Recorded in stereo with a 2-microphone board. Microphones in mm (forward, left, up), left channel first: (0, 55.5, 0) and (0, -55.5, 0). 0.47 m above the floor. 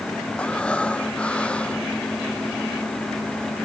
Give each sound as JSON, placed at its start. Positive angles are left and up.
{"t": 0.4, "sound": "breathing", "side_deg": 10}